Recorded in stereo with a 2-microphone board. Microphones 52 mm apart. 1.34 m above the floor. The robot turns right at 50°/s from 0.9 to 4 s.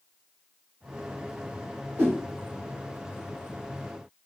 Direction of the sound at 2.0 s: 40° right (ahead or behind).